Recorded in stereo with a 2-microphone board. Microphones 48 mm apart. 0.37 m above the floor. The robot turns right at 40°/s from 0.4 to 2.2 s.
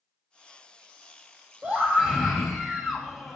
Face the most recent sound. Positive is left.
turn(degrees=-5)  # may be behind; listen again after turning